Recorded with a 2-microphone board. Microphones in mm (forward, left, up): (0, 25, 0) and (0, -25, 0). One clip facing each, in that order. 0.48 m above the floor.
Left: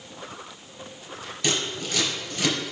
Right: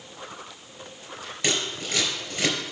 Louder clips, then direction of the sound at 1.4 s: Even; 25° right (ahead or behind).